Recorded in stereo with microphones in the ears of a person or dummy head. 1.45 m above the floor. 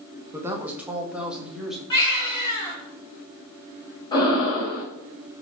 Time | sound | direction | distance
0.3 | a woman speaking | 25° right (ahead or behind) | 1.4 m
1.9 | a baby crying | 15° left (ahead or behind) | 5 m
4.1 | breathing | 15° left (ahead or behind) | 5 m